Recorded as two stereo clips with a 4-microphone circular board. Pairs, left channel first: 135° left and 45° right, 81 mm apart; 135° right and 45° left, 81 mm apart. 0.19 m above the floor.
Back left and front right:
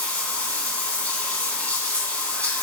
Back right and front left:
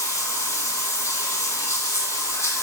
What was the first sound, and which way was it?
Running water, 160° right.